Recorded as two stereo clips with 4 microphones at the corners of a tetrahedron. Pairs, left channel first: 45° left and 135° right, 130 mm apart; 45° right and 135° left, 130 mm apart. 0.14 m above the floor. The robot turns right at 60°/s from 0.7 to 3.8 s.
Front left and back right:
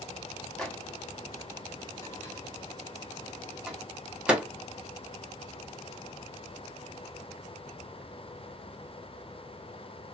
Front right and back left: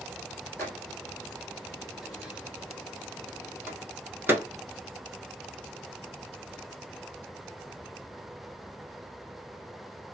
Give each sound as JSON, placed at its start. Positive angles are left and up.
{"t": 0.6, "sound": "a microwave", "azimuth_deg": -30, "distance_m": 0.8}